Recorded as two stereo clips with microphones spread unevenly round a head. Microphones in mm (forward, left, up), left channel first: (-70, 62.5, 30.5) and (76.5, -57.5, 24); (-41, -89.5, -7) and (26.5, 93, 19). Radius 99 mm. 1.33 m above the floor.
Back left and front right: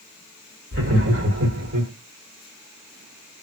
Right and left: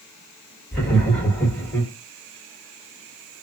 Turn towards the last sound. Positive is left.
turn(degrees=-20)